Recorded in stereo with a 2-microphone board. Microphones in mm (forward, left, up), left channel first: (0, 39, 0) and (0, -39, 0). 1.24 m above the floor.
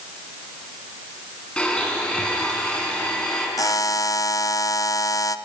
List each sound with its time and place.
1.6 s a blender: 15° left (ahead or behind), 5 m
3.6 s a buzzer: 45° left (ahead or behind), 0.7 m